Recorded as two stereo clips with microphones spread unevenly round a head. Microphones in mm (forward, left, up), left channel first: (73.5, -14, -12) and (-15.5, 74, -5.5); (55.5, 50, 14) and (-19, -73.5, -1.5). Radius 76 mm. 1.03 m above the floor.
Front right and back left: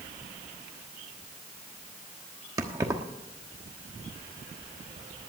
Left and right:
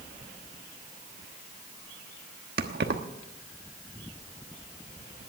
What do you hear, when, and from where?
2.6 s keys jangling: 155° right, 1.1 m